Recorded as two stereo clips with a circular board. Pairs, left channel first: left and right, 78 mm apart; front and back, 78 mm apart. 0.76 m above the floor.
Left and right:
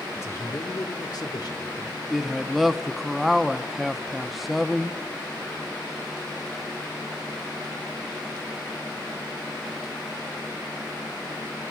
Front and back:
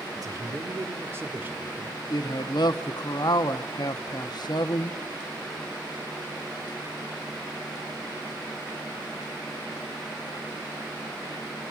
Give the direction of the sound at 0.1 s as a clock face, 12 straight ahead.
7 o'clock.